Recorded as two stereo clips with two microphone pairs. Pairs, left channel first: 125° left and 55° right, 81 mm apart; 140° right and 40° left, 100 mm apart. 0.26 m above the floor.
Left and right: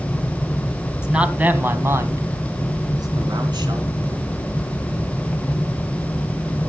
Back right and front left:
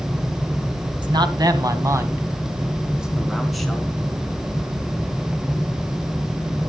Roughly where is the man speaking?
Ahead.